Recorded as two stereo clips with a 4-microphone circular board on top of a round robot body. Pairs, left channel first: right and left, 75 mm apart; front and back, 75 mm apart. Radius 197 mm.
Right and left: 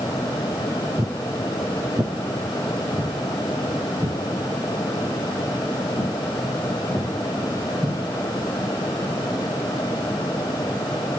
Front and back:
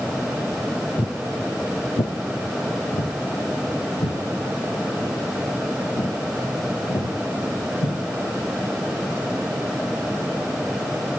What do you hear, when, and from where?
1.0 s footsteps: 40° left, 0.6 m; by 8.0 s 15° left, 5 m